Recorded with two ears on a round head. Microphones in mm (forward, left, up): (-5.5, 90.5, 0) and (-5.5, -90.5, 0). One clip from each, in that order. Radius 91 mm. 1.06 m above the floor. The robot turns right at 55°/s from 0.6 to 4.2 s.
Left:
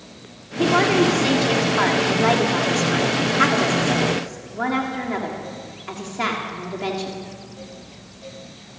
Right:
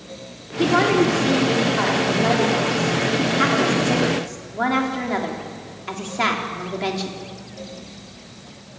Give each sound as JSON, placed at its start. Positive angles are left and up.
{"t": 0.6, "sound": "a woman speaking", "azimuth_deg": -5, "distance_m": 3.0}